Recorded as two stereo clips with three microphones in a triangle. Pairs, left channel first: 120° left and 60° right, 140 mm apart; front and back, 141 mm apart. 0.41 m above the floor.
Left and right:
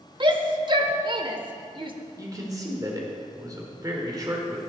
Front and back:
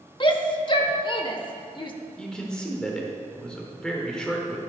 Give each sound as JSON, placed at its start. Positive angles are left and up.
{"t": 0.2, "sound": "a shout", "azimuth_deg": -30, "distance_m": 1.0}
{"t": 2.2, "sound": "a man speaking", "azimuth_deg": -75, "distance_m": 1.5}